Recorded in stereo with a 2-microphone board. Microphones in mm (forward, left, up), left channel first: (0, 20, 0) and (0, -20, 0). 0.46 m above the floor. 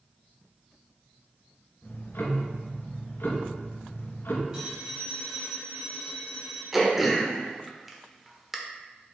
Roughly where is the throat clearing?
Centre.